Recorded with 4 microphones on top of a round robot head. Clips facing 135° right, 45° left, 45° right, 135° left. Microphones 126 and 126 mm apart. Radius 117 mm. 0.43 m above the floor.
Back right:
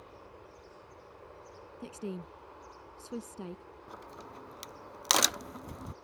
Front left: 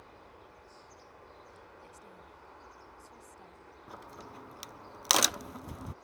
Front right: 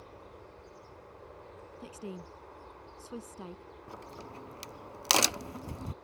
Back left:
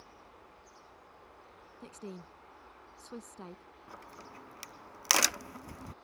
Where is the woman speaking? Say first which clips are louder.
Back right 12 dB, front right 2 dB; 125° right.